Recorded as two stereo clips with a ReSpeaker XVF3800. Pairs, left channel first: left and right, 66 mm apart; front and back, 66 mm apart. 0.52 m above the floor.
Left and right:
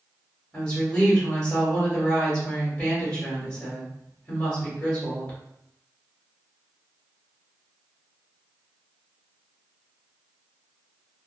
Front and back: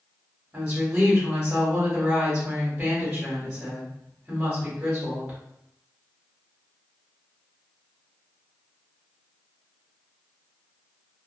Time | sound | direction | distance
0.5 | a woman speaking | 140° left | 1.3 m